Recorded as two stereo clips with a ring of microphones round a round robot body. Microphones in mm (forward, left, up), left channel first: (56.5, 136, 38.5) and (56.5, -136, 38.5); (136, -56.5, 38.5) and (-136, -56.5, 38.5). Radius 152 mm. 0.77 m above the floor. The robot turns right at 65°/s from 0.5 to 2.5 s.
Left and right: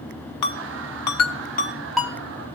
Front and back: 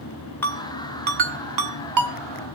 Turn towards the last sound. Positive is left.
turn(degrees=-145)